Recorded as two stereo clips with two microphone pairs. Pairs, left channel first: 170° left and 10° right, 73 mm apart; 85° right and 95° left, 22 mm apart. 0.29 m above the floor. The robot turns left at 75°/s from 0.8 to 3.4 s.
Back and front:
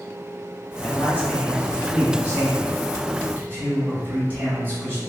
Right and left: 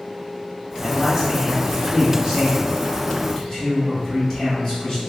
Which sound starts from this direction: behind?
A man speaking, at 0.8 s.